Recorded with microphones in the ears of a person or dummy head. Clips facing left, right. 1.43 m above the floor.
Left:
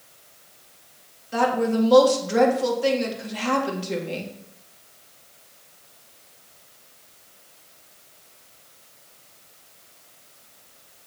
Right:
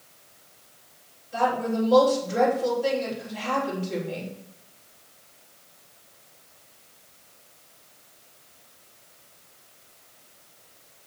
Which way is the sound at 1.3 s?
75° left (ahead or behind).